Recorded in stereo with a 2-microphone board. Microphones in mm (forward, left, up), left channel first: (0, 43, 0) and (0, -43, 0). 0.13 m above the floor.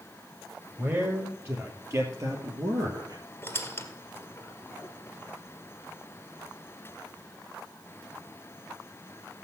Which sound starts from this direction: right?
A man speaking, at 0.8 s.